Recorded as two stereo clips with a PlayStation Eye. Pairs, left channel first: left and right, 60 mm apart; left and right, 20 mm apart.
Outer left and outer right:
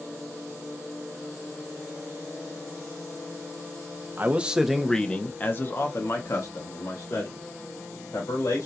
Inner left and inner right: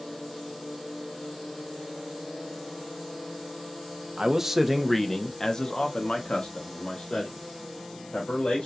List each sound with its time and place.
4.2 s a man speaking: 30° right (ahead or behind), 0.8 m; by 8.7 s 70° left (ahead or behind), 2.5 m